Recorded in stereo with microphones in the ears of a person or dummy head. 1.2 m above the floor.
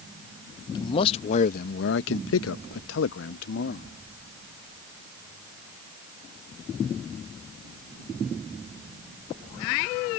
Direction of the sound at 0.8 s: 25° left (ahead or behind).